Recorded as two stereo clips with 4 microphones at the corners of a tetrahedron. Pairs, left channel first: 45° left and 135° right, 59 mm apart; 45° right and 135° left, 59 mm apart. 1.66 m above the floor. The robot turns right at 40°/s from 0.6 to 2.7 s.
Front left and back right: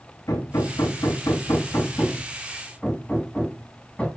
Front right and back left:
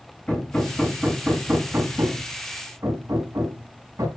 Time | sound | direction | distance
0.3 | hammering | 35° left | 7.5 m